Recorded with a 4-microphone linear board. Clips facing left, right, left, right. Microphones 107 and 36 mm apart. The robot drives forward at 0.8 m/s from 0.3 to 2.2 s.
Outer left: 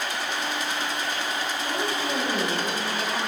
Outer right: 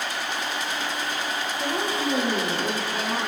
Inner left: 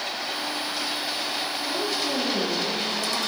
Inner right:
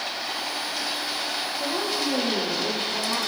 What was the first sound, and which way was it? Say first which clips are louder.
A woman speaking: outer right 4 dB, inner right 2 dB; 45° right (ahead or behind).